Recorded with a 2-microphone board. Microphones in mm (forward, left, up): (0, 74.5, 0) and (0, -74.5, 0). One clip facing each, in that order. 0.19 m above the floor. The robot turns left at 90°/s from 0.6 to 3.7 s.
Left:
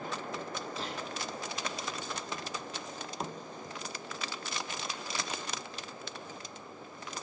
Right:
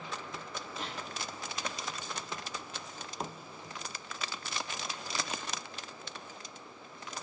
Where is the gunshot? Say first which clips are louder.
Even; 30° left (ahead or behind), 4.5 m; by 1.0 s 50° left (ahead or behind), 4.5 m.